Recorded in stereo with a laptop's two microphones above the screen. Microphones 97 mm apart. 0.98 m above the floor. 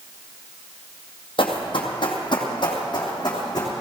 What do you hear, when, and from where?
1.4 s running footsteps: 60° left (ahead or behind), 2.0 m; by 3.7 s 40° left (ahead or behind), 3 m